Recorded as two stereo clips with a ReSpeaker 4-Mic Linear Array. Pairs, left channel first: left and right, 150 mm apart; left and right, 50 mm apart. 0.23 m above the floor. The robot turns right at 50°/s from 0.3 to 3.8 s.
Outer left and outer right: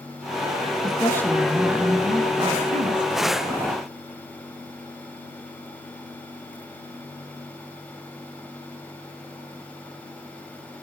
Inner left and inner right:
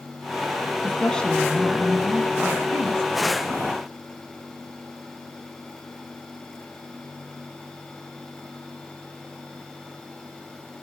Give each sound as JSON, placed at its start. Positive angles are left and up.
{"t": 0.8, "sound": "a woman speaking", "azimuth_deg": 145, "distance_m": 2.0}